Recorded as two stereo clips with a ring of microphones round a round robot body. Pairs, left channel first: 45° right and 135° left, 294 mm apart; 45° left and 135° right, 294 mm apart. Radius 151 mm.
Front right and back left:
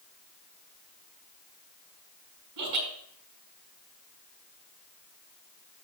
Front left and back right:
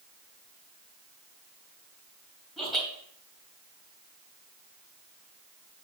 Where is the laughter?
135° left, 3 m.